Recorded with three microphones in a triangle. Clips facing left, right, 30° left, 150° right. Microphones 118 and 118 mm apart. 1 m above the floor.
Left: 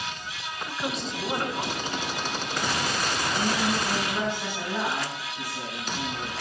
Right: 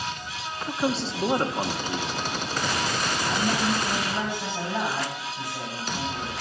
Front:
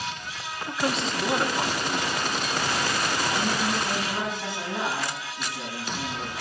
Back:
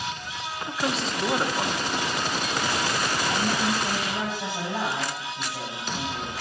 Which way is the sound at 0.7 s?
60° right.